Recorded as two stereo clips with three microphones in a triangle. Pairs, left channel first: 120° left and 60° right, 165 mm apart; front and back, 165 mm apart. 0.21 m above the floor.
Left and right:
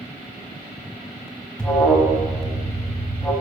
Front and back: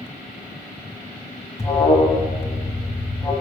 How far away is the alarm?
About 1.2 m.